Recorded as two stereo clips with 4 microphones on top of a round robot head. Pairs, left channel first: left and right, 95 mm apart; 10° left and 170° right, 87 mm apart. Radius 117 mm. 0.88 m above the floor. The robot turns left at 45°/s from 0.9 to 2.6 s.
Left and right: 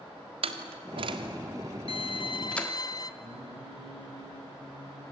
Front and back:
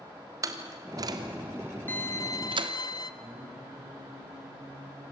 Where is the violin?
75° left, 1.4 m; by 3.1 s 45° left, 1.4 m.